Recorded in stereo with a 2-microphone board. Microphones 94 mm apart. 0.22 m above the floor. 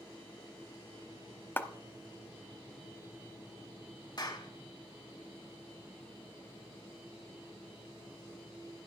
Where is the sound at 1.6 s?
20° left (ahead or behind), 0.8 m.